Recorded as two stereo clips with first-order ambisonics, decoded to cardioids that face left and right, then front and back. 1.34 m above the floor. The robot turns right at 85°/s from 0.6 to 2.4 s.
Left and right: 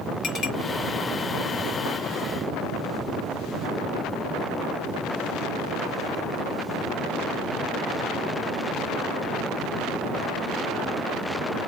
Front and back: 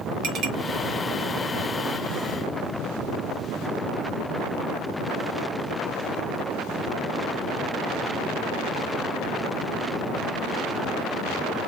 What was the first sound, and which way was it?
A clink, 150° left.